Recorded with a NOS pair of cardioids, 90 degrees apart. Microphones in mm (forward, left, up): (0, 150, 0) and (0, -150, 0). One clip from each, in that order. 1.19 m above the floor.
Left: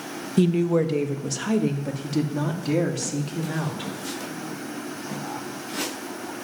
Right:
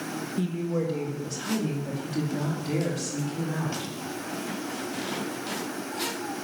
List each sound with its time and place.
0.4 s a woman speaking: 65° left, 1.2 m; by 3.9 s 40° left, 3.5 m